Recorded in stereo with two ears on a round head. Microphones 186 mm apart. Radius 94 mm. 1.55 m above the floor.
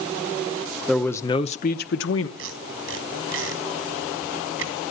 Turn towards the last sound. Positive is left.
turn(degrees=-70)  # may be behind; listen again after turning